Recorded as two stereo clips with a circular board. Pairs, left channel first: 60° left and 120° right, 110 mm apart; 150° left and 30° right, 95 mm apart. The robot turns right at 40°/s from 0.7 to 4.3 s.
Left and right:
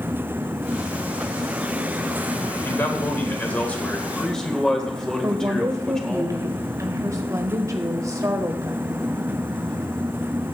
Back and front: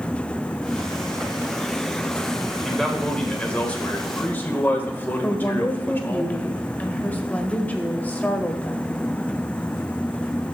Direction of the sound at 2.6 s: 70° left.